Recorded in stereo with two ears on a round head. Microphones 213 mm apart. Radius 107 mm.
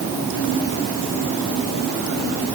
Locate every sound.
Only background noise.